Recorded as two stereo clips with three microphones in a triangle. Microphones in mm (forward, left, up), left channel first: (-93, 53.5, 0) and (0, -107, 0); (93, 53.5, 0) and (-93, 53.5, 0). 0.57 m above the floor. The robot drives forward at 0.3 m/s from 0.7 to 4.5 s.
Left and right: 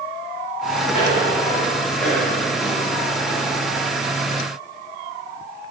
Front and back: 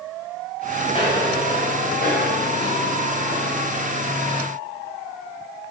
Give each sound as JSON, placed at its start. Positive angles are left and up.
{"t": 0.9, "sound": "footsteps", "azimuth_deg": 60, "distance_m": 3.5}